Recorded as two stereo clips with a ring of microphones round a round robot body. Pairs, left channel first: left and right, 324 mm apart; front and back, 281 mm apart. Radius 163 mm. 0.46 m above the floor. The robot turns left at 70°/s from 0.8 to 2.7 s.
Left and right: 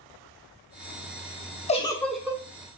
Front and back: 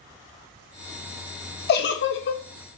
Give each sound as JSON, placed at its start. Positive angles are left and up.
{"t": 1.7, "sound": "a giggle", "azimuth_deg": 30, "distance_m": 0.7}